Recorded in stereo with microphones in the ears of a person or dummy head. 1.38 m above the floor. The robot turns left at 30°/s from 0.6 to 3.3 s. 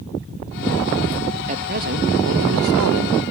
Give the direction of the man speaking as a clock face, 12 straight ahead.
1 o'clock.